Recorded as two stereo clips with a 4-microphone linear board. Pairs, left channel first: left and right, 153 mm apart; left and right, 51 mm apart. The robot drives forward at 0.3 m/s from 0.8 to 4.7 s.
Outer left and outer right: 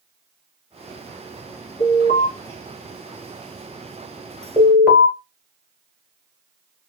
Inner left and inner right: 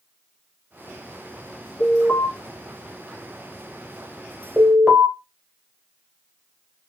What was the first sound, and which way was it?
An alarm, 65° left (ahead or behind).